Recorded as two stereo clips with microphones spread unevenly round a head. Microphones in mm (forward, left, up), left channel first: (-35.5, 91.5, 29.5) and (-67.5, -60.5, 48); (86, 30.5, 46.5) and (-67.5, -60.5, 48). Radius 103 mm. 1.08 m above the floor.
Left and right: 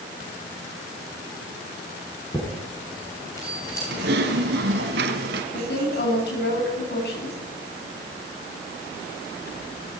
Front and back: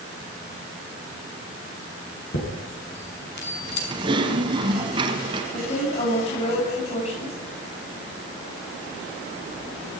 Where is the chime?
Straight ahead, 5.5 m.